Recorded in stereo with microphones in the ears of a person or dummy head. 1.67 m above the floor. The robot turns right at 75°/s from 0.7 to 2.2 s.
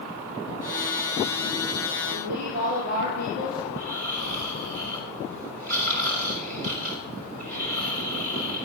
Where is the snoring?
50° right (ahead or behind), 4 m.